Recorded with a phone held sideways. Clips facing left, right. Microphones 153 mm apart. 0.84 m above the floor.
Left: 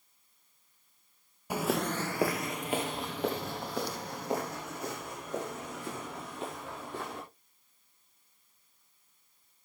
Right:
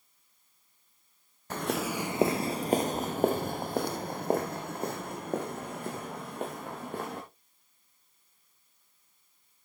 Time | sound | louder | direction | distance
1.5 | footsteps | left 1 dB | 10° left (ahead or behind) | 0.8 m